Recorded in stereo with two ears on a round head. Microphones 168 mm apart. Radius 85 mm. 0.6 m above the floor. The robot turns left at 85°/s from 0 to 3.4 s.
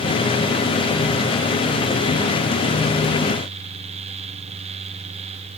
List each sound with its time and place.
Only background noise.